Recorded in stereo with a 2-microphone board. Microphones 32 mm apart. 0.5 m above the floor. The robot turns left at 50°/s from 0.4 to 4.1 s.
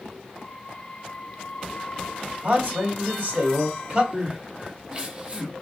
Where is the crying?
35° right (ahead or behind), 1.8 m.